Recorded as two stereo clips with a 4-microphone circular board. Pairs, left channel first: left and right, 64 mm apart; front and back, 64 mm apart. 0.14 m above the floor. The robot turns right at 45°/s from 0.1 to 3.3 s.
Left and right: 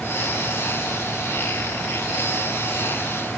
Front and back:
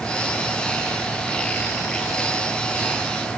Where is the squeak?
I don't hear a squeak.